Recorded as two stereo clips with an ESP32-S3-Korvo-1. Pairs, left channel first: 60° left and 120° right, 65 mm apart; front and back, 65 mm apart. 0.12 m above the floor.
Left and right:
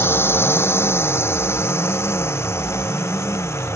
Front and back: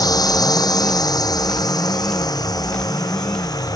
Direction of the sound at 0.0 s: 10° left.